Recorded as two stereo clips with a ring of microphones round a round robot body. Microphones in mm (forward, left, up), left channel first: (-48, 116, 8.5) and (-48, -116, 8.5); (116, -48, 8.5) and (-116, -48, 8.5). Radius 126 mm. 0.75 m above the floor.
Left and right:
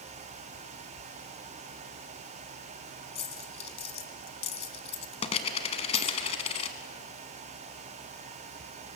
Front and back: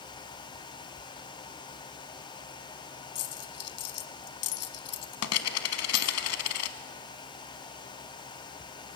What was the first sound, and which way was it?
A dropped coin, 25° left.